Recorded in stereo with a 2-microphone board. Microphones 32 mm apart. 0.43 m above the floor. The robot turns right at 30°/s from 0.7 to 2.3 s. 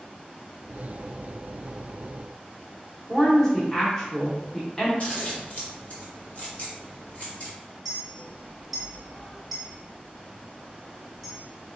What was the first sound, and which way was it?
A woman speaking, 15° left (ahead or behind).